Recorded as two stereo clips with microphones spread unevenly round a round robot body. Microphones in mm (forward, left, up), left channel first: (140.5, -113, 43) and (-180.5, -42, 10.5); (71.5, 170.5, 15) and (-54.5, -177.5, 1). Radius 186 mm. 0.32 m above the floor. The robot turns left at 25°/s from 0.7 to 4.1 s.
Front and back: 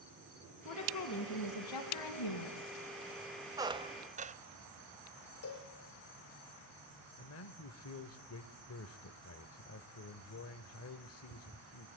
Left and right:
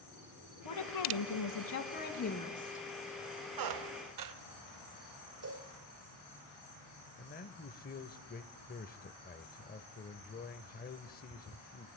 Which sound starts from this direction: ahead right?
A cowbell, at 5.4 s.